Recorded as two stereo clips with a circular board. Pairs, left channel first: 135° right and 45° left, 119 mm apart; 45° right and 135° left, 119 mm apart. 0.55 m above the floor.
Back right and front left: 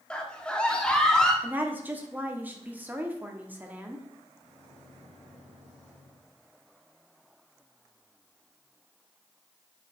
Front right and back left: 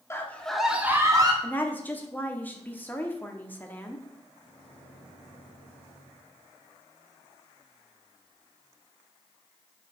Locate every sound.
0.1 s a scream: 65° right, 1.1 m; by 1.3 s 145° left, 1.2 m
1.4 s a woman speaking: straight ahead, 1.0 m
4.4 s a microwave: 60° left, 4.5 m